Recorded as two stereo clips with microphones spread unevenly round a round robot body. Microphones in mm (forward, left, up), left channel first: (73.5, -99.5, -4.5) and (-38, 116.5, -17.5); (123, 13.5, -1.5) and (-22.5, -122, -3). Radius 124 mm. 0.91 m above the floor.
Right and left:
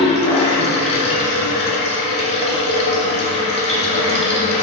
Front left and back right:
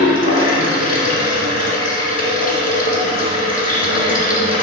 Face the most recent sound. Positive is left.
turn(degrees=0)